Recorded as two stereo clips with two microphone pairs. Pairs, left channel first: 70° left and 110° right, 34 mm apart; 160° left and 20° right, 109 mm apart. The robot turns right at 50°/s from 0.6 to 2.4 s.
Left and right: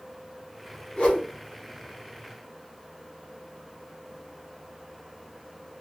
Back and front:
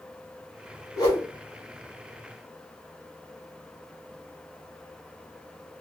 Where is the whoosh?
110° left, 1.8 m; by 1.3 s 130° left, 1.8 m.